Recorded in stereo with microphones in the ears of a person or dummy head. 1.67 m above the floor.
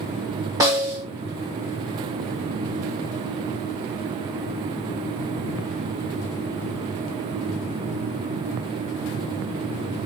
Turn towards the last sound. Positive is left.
turn(degrees=-10)  # may be behind; listen again after turning